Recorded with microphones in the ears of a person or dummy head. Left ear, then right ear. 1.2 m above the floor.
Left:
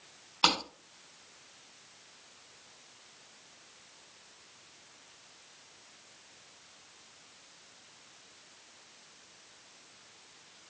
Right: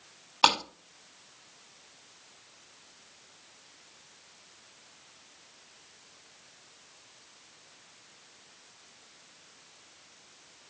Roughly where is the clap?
Right.